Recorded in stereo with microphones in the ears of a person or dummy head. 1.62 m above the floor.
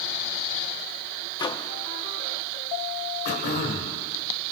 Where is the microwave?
25° left (ahead or behind), 0.5 m.